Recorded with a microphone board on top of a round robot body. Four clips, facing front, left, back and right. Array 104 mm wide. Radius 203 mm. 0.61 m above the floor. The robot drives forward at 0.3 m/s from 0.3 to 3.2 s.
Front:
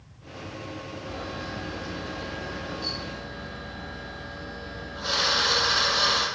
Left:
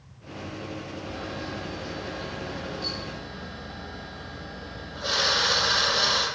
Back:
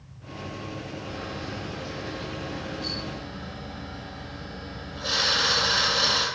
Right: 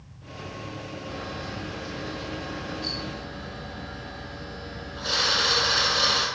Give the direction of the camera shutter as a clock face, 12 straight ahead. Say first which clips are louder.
Even, front 2 dB; 11 o'clock.